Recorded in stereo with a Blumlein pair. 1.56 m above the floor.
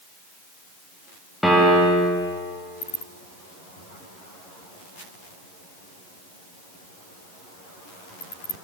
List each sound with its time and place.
1.4 s a piano: straight ahead, 0.9 m